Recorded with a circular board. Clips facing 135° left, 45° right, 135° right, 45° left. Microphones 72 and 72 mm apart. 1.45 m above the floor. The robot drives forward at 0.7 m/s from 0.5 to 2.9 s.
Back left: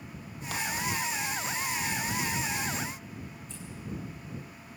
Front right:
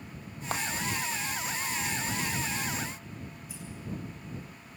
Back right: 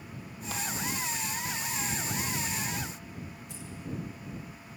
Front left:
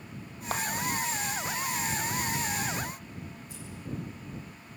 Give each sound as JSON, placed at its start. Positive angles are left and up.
{"t": 0.5, "sound": "a clap", "azimuth_deg": 5, "distance_m": 1.7}
{"t": 3.5, "sound": "scissors", "azimuth_deg": -125, "distance_m": 8.5}